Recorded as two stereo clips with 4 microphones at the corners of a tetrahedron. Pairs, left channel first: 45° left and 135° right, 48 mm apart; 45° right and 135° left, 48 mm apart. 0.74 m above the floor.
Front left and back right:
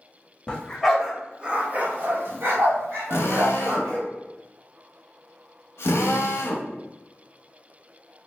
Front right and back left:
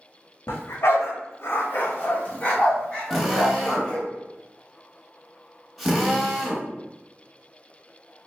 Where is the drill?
45° left, 0.7 m.